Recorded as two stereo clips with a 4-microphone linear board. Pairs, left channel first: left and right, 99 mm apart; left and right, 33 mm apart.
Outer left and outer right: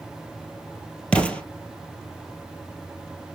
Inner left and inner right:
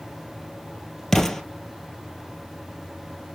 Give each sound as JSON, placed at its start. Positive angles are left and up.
{"t": 1.1, "sound": "an explosion", "side_deg": 15, "distance_m": 1.4}